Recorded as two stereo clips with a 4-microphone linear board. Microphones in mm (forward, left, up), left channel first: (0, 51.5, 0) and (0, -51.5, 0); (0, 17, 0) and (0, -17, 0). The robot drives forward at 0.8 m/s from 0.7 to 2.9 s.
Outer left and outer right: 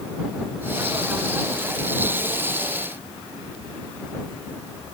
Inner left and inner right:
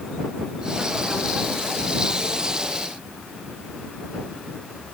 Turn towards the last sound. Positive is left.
No sound to turn to.